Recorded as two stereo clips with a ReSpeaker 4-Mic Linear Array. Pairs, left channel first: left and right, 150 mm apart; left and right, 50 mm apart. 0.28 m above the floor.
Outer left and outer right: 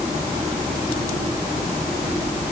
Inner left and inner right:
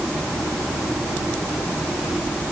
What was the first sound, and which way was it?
Only background noise.